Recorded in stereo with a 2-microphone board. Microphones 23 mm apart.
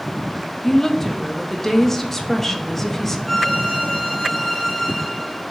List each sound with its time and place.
0.6 s a woman speaking: 15° left (ahead or behind), 0.7 m
3.3 s a violin: 20° right (ahead or behind), 2.5 m